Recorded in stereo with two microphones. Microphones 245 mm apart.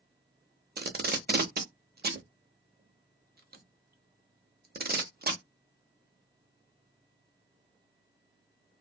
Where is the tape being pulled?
40° right (ahead or behind), 0.5 m.